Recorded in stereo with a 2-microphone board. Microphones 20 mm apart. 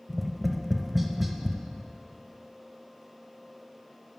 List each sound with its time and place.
0.1 s tapping: 15° right (ahead or behind), 0.7 m